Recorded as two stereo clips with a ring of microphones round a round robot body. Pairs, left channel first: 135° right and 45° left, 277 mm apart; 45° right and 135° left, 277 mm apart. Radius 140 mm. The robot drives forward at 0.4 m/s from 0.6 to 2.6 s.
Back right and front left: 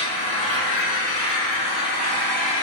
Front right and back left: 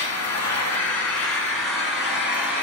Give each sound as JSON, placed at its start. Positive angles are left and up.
{"t": 0.0, "sound": "an engine running", "azimuth_deg": -125, "distance_m": 2.5}